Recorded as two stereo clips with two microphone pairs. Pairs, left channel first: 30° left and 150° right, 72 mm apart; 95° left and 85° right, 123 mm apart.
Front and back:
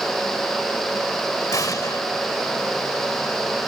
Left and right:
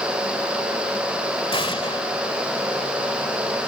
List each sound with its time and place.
1.5 s an explosion: 60° left